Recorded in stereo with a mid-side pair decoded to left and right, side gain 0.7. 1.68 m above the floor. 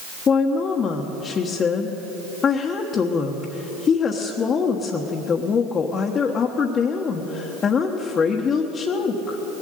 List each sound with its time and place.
0.3 s a woman speaking: 35° left, 1.3 m